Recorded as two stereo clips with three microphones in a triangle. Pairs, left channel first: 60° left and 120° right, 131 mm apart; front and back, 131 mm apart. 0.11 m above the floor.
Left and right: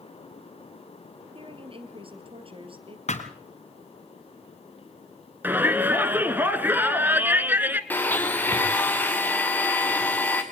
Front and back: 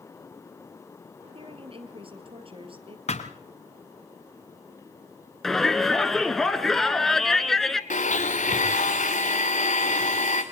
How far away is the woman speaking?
About 2.5 m.